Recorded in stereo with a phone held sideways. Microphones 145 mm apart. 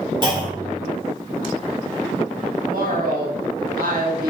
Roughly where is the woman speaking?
Right.